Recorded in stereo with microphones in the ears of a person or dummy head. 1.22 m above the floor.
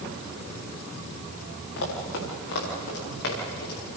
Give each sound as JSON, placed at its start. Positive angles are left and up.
{"t": 1.8, "sound": "running footsteps", "side_deg": 75, "distance_m": 8.0}